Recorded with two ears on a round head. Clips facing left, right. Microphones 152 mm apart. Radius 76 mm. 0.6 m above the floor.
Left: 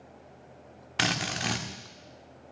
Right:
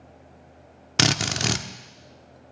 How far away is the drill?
About 0.9 m.